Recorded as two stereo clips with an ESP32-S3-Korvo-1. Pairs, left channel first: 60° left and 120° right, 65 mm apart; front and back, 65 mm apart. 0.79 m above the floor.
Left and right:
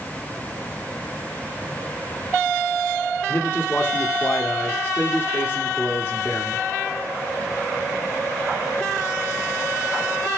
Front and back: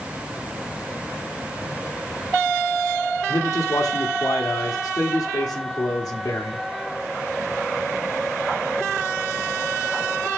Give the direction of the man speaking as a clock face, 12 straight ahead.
12 o'clock.